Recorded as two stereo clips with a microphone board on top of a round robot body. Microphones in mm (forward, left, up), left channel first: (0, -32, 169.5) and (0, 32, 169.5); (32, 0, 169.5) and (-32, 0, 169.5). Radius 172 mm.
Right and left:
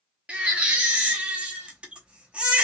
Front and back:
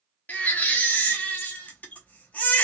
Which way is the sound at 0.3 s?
35° left.